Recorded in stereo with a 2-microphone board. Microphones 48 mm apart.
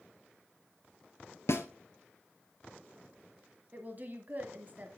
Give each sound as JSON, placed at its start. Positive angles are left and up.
{"t": 1.5, "sound": "a snare drum", "side_deg": 75, "distance_m": 1.7}
{"t": 3.7, "sound": "a woman speaking", "side_deg": -40, "distance_m": 1.4}